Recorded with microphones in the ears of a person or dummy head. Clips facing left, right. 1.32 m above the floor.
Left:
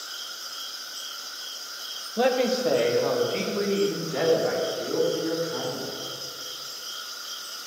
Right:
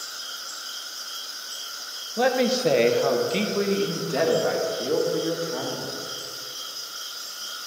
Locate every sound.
2.2 s a man speaking: 5° left (ahead or behind), 0.5 m; by 6.0 s 70° right (ahead or behind), 3 m